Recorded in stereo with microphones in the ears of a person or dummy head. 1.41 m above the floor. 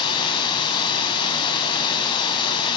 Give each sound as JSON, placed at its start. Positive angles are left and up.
{"t": 0.0, "sound": "running water", "side_deg": 25, "distance_m": 2.5}